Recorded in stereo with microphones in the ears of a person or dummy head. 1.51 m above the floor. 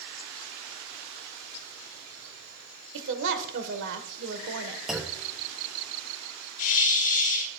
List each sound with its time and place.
2.9 s a woman speaking: 70° right (ahead or behind), 1.3 m
4.9 s a clunk: centre (ahead or behind), 0.5 m
6.6 s a hiss: 45° left (ahead or behind), 4 m